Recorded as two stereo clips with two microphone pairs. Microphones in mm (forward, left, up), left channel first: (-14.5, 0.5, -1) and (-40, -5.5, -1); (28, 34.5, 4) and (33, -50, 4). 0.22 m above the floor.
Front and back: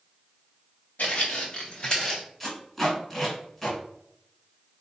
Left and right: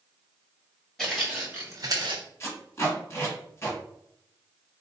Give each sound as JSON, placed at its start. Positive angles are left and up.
{"t": 1.0, "sound": "footsteps", "azimuth_deg": 5, "distance_m": 1.3}
{"t": 2.4, "sound": "tape being pulled", "azimuth_deg": 90, "distance_m": 1.5}